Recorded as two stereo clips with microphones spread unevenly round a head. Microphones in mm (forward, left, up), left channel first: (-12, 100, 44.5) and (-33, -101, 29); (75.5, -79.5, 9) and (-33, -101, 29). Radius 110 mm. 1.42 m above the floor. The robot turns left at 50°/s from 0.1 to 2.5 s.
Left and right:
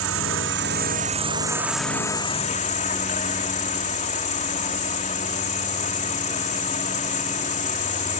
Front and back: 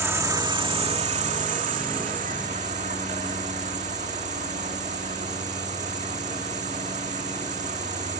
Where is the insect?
100° right; by 8.2 s 140° left.